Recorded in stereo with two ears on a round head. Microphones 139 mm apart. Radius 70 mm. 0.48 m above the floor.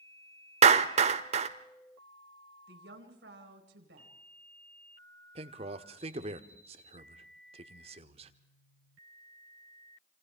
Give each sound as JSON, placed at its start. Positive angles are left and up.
{"t": 0.6, "sound": "a clap", "side_deg": -45, "distance_m": 1.1}
{"t": 2.7, "sound": "a woman speaking", "side_deg": -75, "distance_m": 4.0}
{"t": 5.3, "sound": "a man speaking", "side_deg": -40, "distance_m": 1.3}